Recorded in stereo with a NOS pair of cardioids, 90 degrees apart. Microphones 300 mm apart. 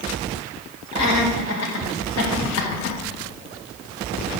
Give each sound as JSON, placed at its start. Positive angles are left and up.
{"t": 0.9, "sound": "laughter", "azimuth_deg": 60, "distance_m": 2.0}